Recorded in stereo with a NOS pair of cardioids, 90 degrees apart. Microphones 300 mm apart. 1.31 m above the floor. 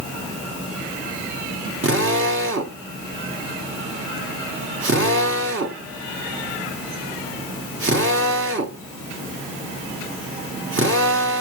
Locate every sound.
1.8 s a drill: 40° right, 3.5 m